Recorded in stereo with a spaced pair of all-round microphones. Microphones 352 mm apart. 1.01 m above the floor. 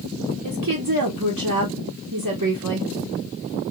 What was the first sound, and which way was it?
A woman speaking, 55° right (ahead or behind).